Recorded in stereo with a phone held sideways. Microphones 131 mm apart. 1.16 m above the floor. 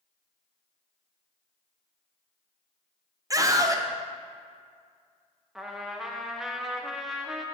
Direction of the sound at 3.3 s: 25° right (ahead or behind).